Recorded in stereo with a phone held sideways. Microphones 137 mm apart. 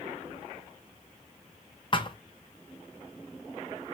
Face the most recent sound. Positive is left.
turn(degrees=35)  # may be behind; listen again after turning